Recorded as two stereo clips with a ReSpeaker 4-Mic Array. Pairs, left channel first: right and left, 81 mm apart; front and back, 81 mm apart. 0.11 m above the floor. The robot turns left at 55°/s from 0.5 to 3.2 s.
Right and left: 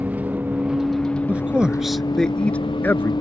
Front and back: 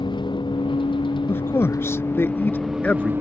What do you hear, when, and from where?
0.0 s a vehicle: 15° left; by 3.2 s 115° right
1.3 s a man speaking: 35° left; by 3.1 s 65° right